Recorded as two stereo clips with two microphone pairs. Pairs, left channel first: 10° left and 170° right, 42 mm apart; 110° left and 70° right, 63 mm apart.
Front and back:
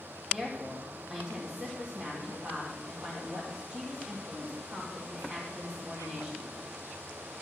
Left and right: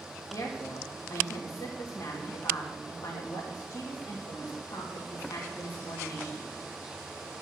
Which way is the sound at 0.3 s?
125° left.